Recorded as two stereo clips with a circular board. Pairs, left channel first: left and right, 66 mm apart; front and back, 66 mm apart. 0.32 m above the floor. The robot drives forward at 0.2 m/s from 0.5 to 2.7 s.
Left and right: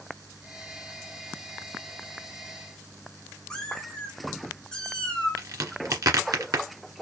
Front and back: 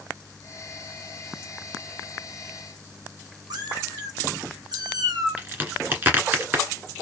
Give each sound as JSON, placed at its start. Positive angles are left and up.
{"t": 3.5, "sound": "a cat meowing", "azimuth_deg": 170, "distance_m": 1.9}
{"t": 5.4, "sound": "a crack", "azimuth_deg": -120, "distance_m": 1.7}